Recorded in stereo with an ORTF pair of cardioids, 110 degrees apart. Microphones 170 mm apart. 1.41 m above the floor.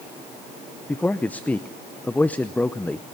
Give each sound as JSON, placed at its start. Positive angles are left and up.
{"t": 0.9, "sound": "a man speaking", "azimuth_deg": 10, "distance_m": 0.7}